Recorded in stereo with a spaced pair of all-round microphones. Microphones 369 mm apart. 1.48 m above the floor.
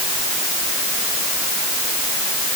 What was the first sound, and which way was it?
Only background noise.